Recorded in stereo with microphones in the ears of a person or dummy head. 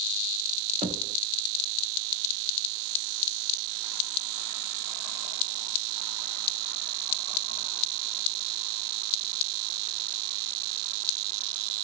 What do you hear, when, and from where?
0.8 s knocking: 25° right (ahead or behind), 0.7 m